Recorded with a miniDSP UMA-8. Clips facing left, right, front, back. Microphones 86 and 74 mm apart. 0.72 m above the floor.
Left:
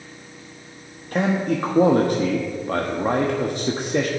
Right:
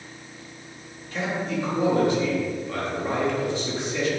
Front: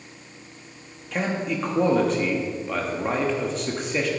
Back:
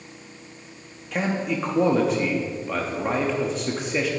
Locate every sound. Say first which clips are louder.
1.1 s a man speaking: left 6 dB, back 1 dB; 95° left, 1.0 m